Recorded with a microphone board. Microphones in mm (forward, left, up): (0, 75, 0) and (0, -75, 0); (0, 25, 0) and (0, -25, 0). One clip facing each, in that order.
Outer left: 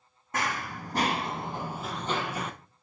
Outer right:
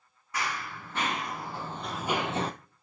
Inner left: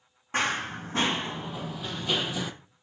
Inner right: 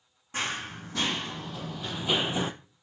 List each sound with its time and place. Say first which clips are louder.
0.3 s running footsteps: outer left 3 dB, inner left 5 dB; 45° left (ahead or behind), 1.4 m; by 2.5 s 35° right (ahead or behind), 0.7 m